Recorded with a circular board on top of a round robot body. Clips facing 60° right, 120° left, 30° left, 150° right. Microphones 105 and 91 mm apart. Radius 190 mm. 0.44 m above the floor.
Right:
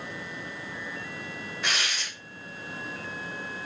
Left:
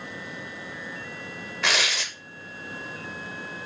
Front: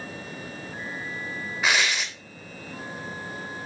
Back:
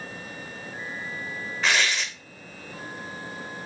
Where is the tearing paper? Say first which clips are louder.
Left 5 dB, even; 110° left, 0.5 m.